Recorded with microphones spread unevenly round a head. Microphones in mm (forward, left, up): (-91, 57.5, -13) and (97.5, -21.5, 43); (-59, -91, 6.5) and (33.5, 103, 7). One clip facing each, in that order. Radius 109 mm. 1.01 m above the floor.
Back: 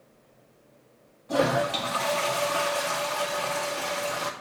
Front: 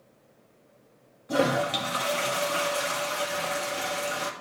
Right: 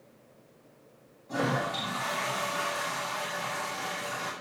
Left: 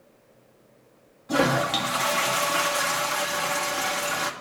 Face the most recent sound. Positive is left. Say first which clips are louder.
# even, left 7 dB
turn(degrees=50)